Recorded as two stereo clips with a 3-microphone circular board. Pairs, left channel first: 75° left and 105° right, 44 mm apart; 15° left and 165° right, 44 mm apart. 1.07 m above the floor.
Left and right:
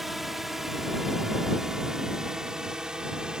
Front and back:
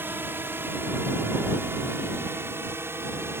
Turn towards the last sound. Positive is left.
turn(degrees=-175)